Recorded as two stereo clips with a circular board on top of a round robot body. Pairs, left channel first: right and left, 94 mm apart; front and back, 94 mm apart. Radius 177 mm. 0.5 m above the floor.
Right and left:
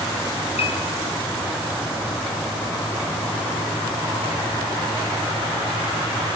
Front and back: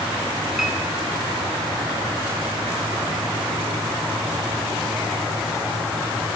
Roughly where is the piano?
Right.